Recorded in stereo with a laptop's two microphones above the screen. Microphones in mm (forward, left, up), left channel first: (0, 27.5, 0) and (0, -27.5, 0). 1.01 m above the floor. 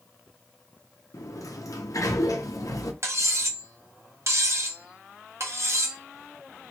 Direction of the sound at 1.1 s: 90° left.